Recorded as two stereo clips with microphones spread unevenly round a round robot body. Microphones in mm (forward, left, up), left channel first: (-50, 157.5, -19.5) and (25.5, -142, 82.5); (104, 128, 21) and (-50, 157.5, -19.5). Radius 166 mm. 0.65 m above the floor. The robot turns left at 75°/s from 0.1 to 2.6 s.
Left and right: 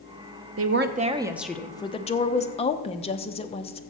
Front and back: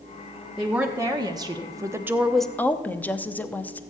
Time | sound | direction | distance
0.6 | a woman speaking | 125° right | 0.8 m